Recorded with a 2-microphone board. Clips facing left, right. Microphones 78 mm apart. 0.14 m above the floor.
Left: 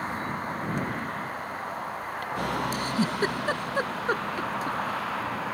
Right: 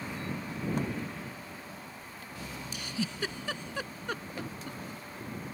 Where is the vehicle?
50° left (ahead or behind); by 5.5 s 85° left.